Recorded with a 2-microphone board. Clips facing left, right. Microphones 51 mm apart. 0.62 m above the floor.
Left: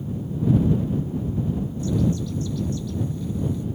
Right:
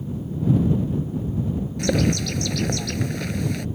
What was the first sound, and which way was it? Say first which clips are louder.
A bird: right 3 dB; 85° right.